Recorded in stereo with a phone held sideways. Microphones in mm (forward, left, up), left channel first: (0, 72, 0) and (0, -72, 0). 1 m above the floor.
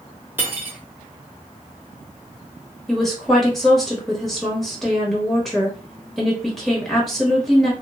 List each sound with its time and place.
0.4 s cutlery clinking: 15° right (ahead or behind), 0.7 m
2.9 s a woman speaking: centre (ahead or behind), 0.9 m